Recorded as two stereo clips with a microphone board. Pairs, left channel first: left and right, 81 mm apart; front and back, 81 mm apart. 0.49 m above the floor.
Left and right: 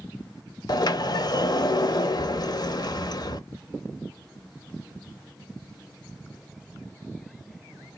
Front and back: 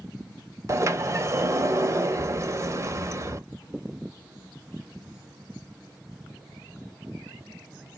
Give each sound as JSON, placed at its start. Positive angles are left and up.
{"t": 0.7, "sound": "a sliding door", "azimuth_deg": 125, "distance_m": 0.5}